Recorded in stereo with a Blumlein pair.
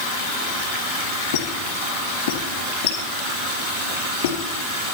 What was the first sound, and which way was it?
A squeak, 55° left.